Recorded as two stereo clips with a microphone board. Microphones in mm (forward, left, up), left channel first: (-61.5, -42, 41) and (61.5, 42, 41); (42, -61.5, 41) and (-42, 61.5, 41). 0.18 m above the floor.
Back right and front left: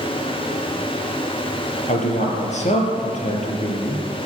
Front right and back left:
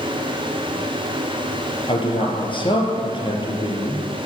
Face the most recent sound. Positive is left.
turn(degrees=-110)